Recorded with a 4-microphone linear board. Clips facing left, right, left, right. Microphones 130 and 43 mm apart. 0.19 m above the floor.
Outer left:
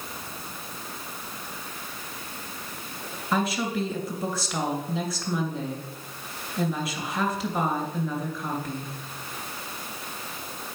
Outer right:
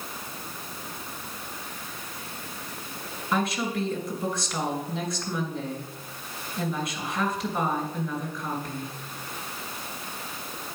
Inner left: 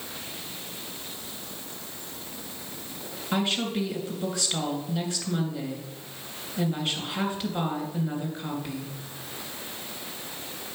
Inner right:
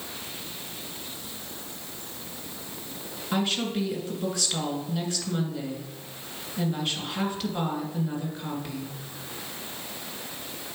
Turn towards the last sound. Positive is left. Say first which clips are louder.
# outer left 1 dB, even
turn(degrees=5)  # may be behind; listen again after turning